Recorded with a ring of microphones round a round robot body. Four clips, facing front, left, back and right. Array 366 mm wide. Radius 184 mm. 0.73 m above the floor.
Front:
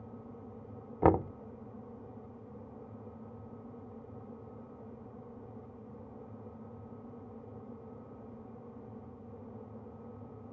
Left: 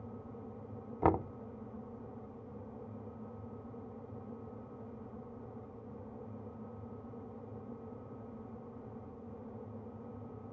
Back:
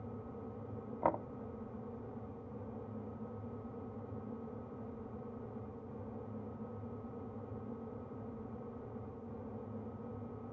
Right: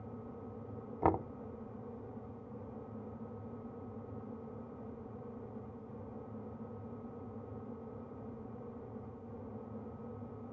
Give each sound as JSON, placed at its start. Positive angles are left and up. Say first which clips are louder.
{"t": 1.0, "sound": "knocking", "louder": "left 2 dB, front 9 dB", "azimuth_deg": 5}